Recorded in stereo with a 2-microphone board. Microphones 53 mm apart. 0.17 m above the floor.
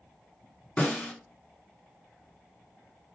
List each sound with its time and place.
0.8 s a snare drum: 35° left (ahead or behind), 1.7 m